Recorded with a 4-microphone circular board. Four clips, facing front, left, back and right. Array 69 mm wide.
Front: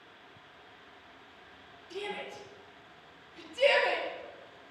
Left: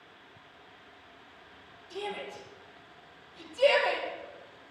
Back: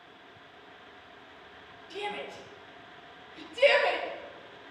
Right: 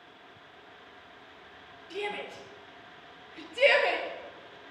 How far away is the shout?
About 3.5 m.